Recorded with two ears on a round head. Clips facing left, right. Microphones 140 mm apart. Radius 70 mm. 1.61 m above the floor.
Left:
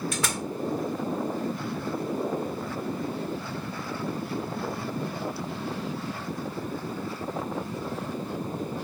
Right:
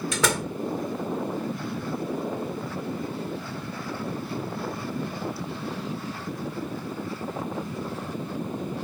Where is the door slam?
65° right (ahead or behind).